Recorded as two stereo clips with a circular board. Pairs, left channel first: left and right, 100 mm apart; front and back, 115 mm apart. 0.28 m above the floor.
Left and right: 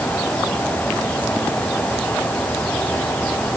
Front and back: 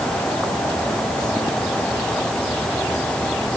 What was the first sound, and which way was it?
Only background noise.